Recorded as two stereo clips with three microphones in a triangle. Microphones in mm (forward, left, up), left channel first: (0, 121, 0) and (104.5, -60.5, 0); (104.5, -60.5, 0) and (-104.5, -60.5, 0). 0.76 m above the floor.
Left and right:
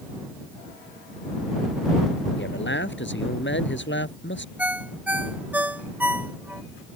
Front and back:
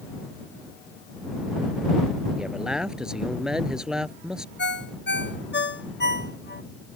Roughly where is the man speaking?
Left.